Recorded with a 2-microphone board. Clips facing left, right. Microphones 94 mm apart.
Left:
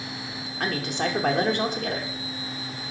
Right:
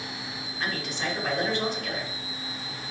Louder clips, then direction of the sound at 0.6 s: Left 5 dB; 60° left (ahead or behind).